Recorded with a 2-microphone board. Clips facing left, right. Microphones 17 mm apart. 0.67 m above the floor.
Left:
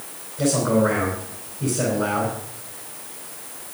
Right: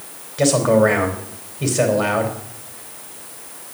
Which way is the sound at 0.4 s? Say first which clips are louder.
Right 5 dB; 55° right (ahead or behind).